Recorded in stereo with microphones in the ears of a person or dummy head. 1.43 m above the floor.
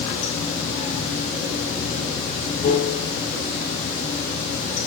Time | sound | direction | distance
0.0 | running water | 30° left (ahead or behind) | 2.5 m